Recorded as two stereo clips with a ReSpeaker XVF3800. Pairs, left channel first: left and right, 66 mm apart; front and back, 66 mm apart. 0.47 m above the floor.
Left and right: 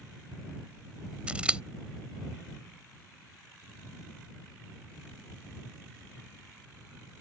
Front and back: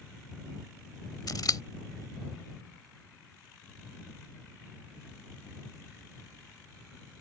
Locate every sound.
1.3 s scissors: 15° right